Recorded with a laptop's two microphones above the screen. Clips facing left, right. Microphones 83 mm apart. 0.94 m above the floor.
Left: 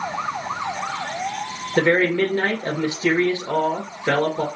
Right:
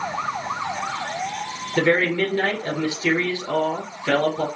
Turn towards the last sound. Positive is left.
turn(degrees=25)  # may be behind; listen again after turning